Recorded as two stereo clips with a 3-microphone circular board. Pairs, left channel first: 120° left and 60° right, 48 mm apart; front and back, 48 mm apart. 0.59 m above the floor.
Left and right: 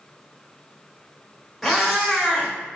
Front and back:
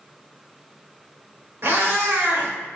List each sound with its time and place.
1.6 s a cat meowing: 150° right, 1.1 m